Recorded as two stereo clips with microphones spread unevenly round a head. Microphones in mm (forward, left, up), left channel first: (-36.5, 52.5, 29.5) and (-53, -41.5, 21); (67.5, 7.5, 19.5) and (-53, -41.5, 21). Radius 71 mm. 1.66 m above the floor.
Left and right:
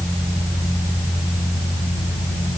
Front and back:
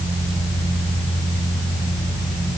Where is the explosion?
No explosion in this recording.